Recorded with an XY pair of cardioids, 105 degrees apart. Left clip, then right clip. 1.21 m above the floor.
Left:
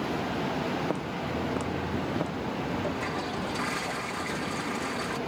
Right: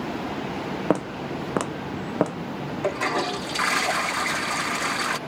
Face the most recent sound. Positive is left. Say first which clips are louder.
# right 7 dB
turn(degrees=-70)